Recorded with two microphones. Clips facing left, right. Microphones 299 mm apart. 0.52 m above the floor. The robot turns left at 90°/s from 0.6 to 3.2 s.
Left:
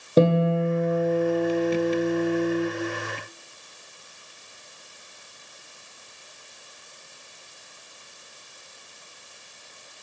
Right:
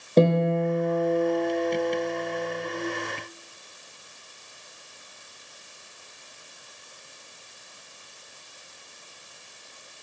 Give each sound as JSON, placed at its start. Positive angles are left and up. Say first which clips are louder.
{"t": 0.2, "sound": "a guitar", "louder": "left 1 dB", "azimuth_deg": 170, "distance_m": 1.4}